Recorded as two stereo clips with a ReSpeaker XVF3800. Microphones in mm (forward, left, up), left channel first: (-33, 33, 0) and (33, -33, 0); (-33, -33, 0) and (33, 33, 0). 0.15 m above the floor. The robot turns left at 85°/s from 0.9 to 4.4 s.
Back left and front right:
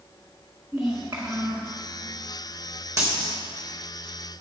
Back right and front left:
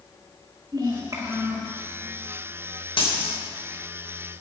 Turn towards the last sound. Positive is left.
turn(degrees=135)